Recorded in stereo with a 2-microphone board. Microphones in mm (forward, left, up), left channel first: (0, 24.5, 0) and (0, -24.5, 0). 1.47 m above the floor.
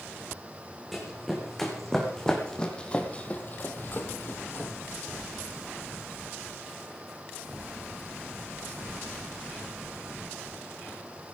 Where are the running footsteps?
Centre (ahead or behind), 4.5 m; by 4.7 s 40° left (ahead or behind), 2 m.